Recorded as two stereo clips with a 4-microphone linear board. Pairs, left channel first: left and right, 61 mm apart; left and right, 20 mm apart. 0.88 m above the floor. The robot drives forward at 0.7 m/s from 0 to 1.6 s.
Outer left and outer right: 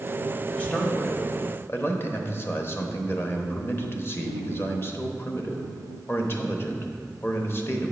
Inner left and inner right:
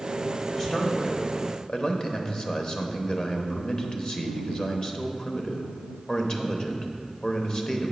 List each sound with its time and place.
0.6 s a man speaking: 20° left (ahead or behind), 1.5 m; by 7.9 s 35° left (ahead or behind), 0.9 m